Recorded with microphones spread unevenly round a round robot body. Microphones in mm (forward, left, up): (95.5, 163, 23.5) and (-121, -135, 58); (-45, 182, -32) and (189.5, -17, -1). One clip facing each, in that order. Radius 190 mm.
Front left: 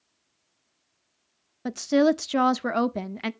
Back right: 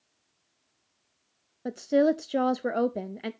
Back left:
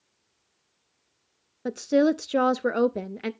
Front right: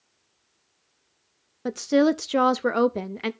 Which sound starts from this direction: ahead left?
A woman speaking, at 1.6 s.